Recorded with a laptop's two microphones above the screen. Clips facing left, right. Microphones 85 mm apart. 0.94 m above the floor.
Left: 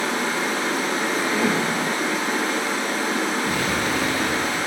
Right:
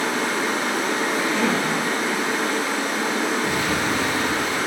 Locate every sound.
0.0 s running water: 80° right, 2.0 m
1.1 s a cough: 10° left (ahead or behind), 0.7 m
3.4 s an explosion: 25° right (ahead or behind), 0.7 m